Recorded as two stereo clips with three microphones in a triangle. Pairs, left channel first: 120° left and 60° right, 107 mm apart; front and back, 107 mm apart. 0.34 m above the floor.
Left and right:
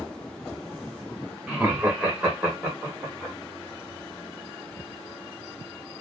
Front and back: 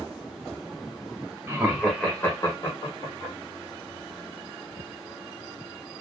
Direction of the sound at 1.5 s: 135° right.